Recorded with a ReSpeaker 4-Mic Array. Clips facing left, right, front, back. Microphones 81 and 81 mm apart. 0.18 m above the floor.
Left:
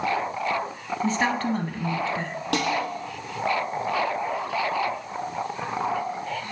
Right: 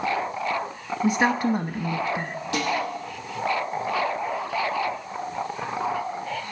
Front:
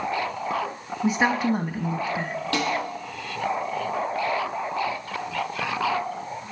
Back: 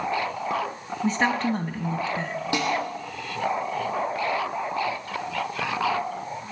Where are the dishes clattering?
105° left, 4 m.